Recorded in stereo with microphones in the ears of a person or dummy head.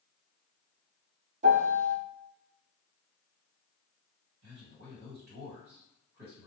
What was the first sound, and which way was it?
A piano, 40° right (ahead or behind).